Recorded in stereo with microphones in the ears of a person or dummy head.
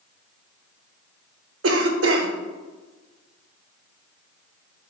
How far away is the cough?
About 0.6 m.